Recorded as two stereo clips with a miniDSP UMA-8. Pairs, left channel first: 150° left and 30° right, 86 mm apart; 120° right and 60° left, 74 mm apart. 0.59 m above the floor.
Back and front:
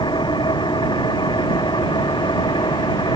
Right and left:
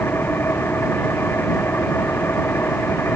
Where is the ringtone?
No ringtone in this recording.